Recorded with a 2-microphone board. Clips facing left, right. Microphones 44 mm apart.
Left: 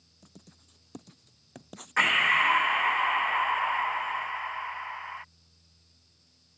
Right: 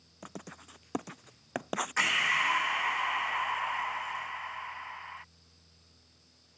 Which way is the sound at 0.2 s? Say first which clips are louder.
Right 11 dB; 60° right (ahead or behind).